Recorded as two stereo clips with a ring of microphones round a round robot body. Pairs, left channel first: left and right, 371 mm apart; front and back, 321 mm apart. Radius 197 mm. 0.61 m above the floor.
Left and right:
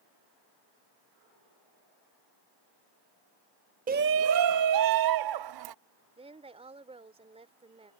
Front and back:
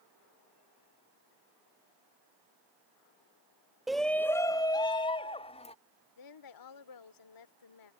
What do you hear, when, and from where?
3.9 s a shout: 90° right; by 5.8 s 70° right
6.2 s a woman speaking: 15° right